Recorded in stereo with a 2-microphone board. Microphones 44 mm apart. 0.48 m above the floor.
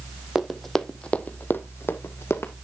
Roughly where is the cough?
I don't hear a cough.